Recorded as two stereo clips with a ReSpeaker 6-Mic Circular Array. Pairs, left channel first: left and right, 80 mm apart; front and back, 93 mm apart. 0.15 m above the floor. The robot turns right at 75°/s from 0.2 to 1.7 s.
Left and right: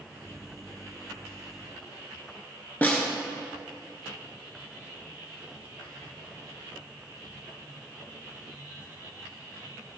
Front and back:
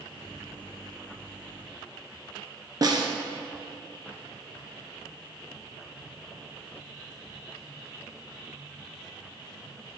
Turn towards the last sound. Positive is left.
turn(degrees=150)